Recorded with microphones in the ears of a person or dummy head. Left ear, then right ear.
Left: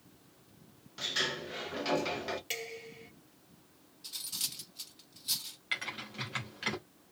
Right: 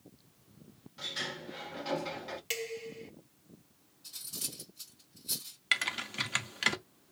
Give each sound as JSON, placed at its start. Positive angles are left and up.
{"t": 1.0, "sound": "a sliding door", "side_deg": 20, "distance_m": 0.9}
{"t": 2.5, "sound": "dishes clattering", "side_deg": -15, "distance_m": 1.0}
{"t": 4.0, "sound": "cutlery clinking", "side_deg": 35, "distance_m": 1.3}
{"t": 5.7, "sound": "typing on a keyboard", "side_deg": -35, "distance_m": 0.7}